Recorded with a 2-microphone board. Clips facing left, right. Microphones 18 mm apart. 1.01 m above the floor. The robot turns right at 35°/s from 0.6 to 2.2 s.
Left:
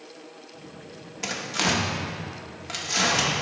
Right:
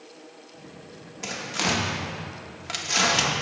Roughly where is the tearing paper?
Left.